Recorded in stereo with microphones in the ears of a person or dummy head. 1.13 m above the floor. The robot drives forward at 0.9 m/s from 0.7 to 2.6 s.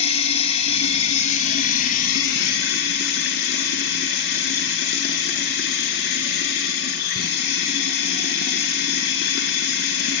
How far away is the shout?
I don't hear a shout.